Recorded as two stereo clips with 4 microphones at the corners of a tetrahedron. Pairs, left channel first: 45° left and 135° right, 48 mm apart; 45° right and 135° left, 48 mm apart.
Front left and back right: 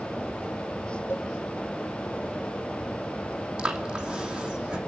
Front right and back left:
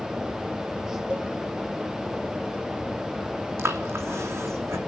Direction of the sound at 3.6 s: 155° left.